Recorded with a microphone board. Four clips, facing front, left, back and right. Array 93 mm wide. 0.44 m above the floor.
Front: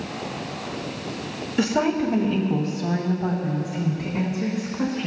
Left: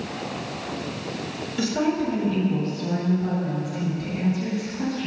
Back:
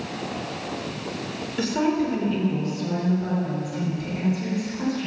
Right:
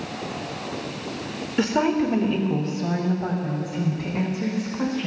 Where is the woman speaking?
65° right, 1.6 m.